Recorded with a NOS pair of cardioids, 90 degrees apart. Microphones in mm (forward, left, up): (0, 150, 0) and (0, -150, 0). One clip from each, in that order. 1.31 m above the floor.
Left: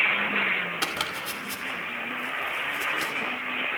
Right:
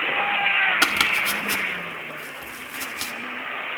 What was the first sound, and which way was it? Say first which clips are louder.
Chopping: right 9 dB; 55° right.